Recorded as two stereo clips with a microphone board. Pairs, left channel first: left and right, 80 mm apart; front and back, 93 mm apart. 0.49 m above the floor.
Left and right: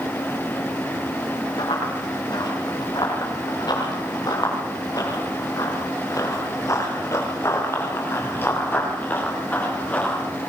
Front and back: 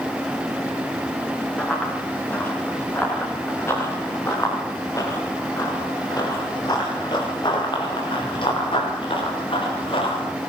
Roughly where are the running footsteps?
Left.